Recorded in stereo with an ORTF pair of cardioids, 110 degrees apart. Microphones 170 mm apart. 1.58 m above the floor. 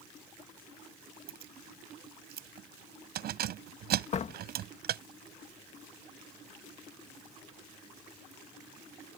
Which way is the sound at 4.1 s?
40° left.